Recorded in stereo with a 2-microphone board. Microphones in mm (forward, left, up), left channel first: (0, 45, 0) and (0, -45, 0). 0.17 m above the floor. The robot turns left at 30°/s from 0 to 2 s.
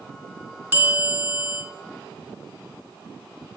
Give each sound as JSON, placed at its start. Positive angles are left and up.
{"t": 0.7, "sound": "a bell", "side_deg": -25, "distance_m": 1.7}